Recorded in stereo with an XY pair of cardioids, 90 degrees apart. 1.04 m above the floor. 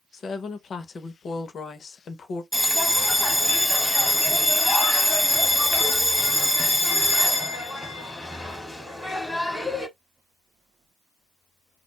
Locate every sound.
0.1 s a woman speaking: 55° left, 0.8 m
2.5 s a bell: 5° left, 1.2 m